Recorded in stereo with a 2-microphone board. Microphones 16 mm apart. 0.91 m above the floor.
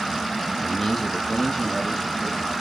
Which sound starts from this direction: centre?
A man speaking, at 0.6 s.